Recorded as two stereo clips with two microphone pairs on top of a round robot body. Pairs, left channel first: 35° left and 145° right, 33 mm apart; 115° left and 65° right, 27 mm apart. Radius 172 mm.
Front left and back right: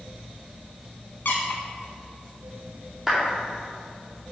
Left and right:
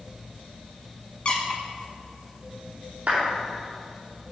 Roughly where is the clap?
Right.